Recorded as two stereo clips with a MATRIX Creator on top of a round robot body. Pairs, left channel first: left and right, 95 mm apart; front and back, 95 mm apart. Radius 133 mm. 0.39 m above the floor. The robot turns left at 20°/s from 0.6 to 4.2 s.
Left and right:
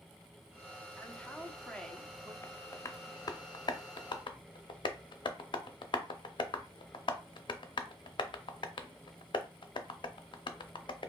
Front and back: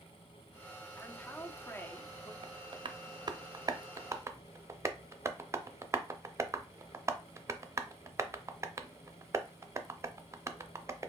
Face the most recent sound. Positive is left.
turn(degrees=120)